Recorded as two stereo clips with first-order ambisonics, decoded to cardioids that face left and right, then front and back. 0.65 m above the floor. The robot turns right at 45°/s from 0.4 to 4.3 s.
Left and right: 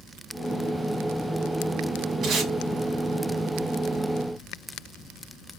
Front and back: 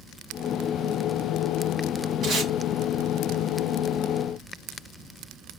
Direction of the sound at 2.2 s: 130° right.